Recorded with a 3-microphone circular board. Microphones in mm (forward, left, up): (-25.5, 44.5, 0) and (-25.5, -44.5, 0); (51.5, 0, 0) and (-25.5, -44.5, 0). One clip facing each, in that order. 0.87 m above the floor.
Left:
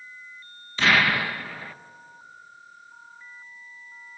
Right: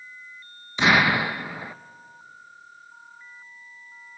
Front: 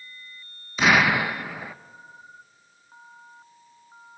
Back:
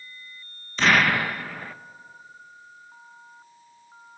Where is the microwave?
No microwave in this recording.